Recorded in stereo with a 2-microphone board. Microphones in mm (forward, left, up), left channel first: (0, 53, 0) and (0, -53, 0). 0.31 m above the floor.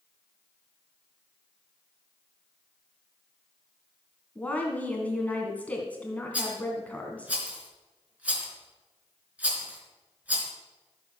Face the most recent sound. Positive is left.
turn(degrees=-15)  # may be behind; listen again after turning